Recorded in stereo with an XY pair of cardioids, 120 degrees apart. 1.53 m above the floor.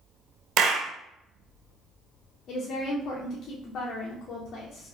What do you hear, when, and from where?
0.6 s a clap: 65° right, 0.6 m
2.5 s a woman speaking: 50° left, 0.7 m